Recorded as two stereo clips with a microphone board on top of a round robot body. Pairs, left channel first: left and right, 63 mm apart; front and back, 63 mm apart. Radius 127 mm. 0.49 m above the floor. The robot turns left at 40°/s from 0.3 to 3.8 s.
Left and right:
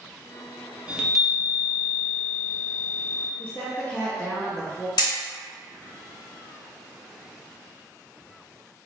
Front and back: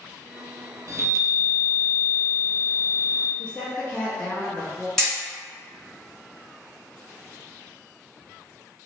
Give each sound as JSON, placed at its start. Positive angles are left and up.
{"t": 0.9, "sound": "a chime", "azimuth_deg": -160, "distance_m": 0.8}
{"t": 3.4, "sound": "a woman speaking", "azimuth_deg": 55, "distance_m": 1.0}
{"t": 5.0, "sound": "hammering", "azimuth_deg": 80, "distance_m": 1.7}